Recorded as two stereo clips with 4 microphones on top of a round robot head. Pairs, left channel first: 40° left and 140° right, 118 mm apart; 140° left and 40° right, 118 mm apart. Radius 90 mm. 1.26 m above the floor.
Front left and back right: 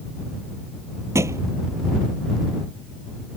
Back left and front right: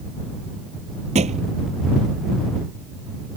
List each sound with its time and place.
1.1 s a thud: 75° right